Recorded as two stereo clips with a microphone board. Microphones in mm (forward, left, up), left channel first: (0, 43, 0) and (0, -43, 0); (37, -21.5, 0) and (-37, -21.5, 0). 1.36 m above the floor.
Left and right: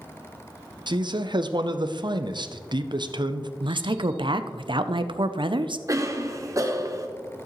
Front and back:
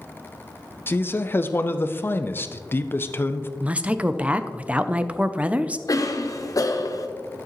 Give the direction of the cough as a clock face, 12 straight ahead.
1 o'clock.